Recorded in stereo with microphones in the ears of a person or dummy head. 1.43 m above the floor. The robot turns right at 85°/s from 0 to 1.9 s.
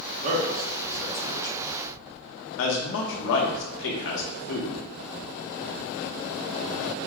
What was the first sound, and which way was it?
A man speaking, 45° right (ahead or behind).